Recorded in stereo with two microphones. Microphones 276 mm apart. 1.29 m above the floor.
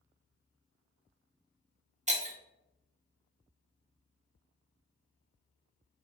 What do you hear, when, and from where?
2.1 s breaking glass: 25° right (ahead or behind), 0.7 m